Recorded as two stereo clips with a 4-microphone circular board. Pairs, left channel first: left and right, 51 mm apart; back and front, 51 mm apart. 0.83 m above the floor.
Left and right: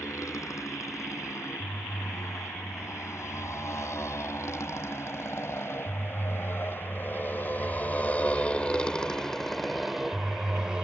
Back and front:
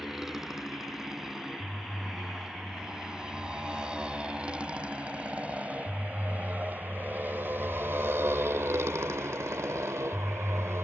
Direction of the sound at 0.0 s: 85° left.